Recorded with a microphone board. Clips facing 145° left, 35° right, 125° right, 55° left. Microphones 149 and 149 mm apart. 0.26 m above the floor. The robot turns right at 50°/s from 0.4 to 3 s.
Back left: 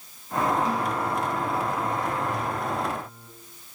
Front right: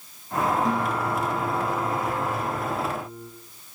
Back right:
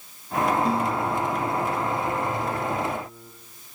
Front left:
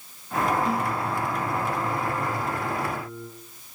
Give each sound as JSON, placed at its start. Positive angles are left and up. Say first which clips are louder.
{"t": 0.7, "sound": "a guitar", "louder": "front right 1 dB, back right 2 dB", "azimuth_deg": -70, "distance_m": 6.0}